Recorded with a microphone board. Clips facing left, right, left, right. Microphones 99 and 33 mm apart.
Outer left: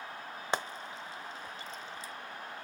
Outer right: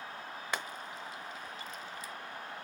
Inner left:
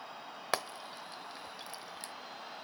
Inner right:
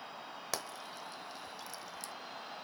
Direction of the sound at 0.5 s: 30° left (ahead or behind).